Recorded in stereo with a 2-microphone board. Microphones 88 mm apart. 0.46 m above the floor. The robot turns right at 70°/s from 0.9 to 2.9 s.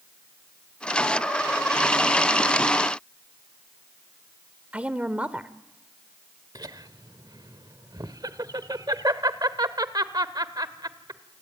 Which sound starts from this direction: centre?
A woman speaking, at 4.7 s.